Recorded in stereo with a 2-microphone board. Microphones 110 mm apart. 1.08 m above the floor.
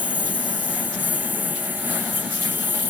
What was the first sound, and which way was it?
A lawn mower, 15° right (ahead or behind).